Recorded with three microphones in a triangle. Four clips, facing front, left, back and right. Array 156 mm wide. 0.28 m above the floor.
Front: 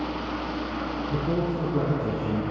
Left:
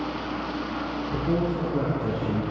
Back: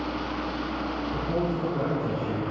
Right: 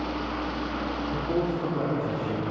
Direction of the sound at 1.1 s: 40° left.